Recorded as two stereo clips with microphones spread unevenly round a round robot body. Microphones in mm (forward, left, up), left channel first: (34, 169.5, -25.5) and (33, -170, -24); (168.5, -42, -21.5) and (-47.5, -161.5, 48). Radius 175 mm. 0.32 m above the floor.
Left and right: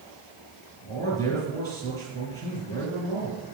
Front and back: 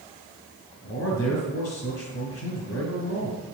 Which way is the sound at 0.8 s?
15° left.